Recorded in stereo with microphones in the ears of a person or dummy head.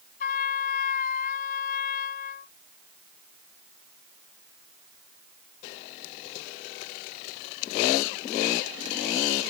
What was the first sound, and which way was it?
A trumpet, 50° left (ahead or behind).